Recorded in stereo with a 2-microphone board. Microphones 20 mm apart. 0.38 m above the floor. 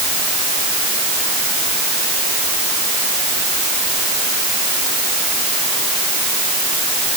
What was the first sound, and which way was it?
Only background noise.